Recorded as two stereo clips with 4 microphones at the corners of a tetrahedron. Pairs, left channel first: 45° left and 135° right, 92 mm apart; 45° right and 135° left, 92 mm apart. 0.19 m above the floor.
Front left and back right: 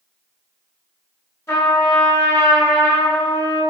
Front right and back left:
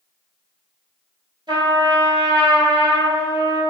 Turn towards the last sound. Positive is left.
turn(degrees=105)